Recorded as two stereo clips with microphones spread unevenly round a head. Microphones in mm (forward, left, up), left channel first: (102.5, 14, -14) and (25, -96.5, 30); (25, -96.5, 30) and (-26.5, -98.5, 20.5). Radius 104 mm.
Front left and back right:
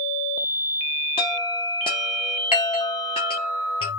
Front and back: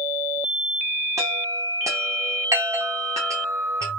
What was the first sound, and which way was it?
A chime, 125° left.